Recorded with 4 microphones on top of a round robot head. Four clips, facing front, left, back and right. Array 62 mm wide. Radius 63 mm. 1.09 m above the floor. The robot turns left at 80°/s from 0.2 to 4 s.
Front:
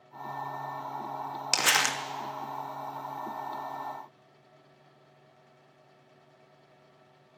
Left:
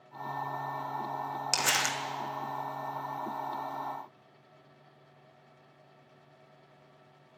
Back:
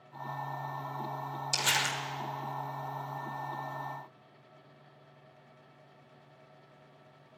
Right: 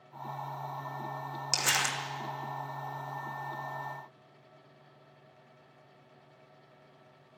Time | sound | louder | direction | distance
1.5 | crumpling | even, front 5 dB | 10° left | 1.2 m